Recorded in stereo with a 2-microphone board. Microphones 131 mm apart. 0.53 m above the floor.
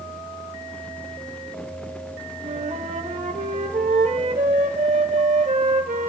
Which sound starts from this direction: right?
A flute, at 2.4 s.